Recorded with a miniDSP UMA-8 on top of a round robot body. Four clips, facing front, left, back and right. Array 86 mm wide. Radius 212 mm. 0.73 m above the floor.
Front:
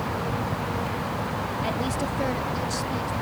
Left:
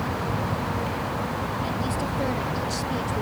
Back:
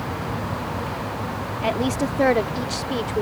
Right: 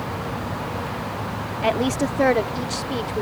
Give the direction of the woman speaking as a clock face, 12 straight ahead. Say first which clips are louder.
Right 6 dB, back 8 dB; 4 o'clock.